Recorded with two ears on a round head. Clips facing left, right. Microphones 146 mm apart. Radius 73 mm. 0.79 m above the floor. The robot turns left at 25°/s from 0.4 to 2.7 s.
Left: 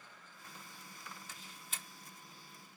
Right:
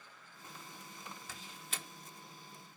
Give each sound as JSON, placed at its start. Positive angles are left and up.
{"t": 1.3, "sound": "a door slam", "side_deg": -70}